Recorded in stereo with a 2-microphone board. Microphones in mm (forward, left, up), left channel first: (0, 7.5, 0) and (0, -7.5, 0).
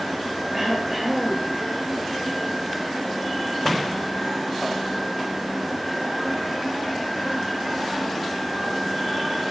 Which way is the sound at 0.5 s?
20° right (ahead or behind).